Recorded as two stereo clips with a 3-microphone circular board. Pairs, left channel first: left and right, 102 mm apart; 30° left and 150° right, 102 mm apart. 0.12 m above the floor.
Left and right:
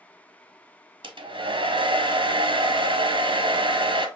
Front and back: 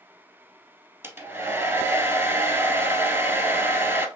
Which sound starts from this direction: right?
A hair dryer, at 1.0 s.